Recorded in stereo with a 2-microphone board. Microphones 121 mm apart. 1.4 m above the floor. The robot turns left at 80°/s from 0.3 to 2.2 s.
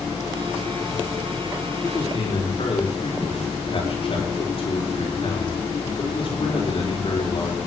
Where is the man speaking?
165° left, 4.5 m; by 7.6 s 130° left, 4.5 m.